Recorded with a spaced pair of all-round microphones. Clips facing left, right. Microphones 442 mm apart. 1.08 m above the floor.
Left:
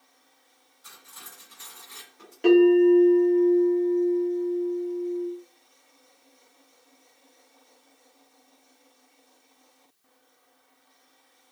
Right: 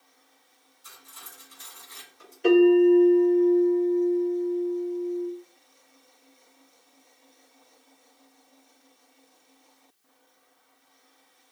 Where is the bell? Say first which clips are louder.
Left 1 dB; 70° left (ahead or behind), 1.9 m.